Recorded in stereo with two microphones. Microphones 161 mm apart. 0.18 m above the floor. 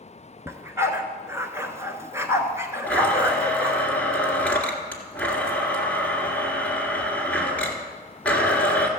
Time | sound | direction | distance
0.5 | a dog barking | 15° right (ahead or behind) | 0.9 m
2.9 | a blender | 5° left (ahead or behind) | 1.8 m